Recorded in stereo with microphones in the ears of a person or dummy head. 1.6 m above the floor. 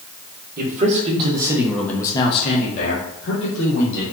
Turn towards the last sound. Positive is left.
turn(degrees=65)  # may be behind; listen again after turning